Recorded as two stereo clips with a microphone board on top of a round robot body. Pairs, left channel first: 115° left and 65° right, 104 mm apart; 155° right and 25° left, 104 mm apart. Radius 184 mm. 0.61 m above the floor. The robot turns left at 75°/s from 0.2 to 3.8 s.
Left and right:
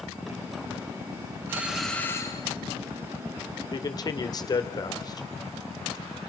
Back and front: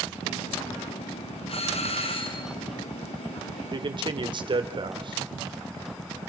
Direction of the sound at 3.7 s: 70° left.